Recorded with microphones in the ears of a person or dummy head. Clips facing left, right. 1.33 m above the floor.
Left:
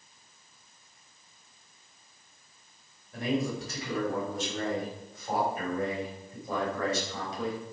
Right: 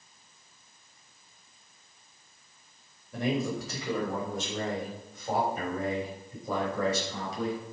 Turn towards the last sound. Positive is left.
turn(degrees=-80)